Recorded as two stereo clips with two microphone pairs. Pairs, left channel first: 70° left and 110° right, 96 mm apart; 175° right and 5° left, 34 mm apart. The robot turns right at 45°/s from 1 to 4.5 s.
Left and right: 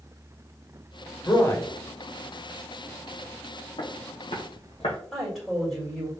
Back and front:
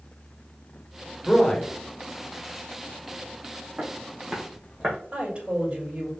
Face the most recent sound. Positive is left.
turn(degrees=-25)